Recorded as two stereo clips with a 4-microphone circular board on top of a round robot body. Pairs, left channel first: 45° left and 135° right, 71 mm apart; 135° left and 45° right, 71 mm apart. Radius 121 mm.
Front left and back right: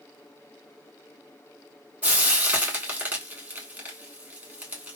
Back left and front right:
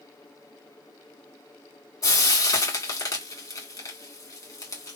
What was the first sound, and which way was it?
Frying, 160° left.